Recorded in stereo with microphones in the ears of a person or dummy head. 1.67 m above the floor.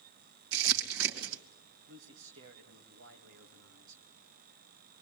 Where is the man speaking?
65° right (ahead or behind), 2.5 m.